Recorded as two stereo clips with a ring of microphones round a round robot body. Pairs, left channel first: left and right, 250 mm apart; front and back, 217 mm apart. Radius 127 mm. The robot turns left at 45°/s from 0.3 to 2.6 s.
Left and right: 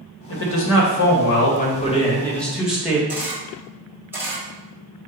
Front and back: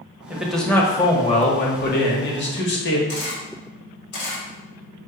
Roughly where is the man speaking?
Left.